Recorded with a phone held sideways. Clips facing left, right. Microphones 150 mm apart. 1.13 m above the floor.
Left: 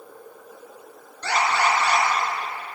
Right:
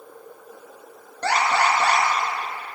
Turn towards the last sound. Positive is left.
turn(degrees=-65)  # may be behind; listen again after turning